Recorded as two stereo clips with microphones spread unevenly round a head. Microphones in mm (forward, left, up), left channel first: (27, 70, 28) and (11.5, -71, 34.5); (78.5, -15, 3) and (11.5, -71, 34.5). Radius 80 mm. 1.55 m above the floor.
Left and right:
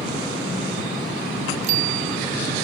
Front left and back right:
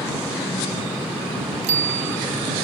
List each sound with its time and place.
1.6 s a bicycle bell: 145° right